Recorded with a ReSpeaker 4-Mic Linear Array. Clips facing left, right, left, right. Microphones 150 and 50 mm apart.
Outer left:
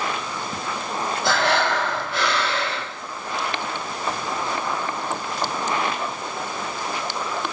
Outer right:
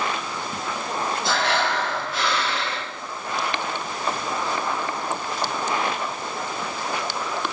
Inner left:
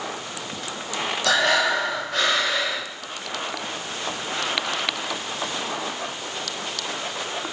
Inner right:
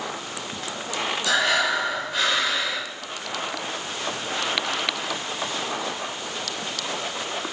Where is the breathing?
70° left (ahead or behind), 4 m.